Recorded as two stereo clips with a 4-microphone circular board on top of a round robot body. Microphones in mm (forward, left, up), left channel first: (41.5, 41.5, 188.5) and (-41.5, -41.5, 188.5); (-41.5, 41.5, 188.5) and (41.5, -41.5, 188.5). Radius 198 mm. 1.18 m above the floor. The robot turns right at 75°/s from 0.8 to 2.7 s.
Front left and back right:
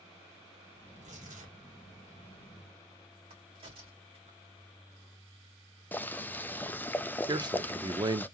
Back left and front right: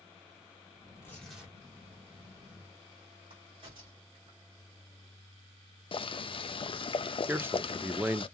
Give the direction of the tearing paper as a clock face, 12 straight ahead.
6 o'clock.